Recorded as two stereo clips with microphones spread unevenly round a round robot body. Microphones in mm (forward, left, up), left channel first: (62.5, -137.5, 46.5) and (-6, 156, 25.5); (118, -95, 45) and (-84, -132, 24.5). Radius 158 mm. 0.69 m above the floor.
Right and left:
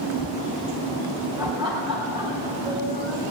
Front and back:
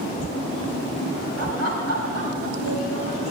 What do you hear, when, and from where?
1.4 s laughter: straight behind, 4.5 m; by 3.3 s 175° left, 5.5 m